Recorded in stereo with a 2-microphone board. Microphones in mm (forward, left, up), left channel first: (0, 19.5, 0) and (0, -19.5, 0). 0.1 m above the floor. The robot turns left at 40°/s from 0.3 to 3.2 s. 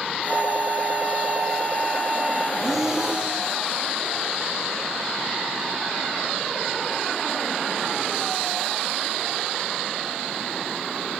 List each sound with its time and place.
0.3 s a flute: 100° right, 2.5 m; by 2.5 s 175° left, 2.5 m
2.6 s breathing: centre (ahead or behind), 5.5 m; by 3.4 s 25° right (ahead or behind), 5.5 m